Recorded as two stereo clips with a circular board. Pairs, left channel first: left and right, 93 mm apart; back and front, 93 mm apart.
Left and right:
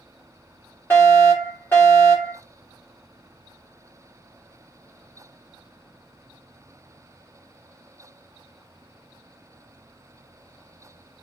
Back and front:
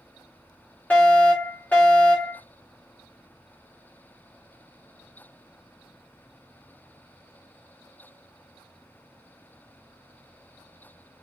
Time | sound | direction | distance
0.9 | a fire alarm | 125° left | 1.7 m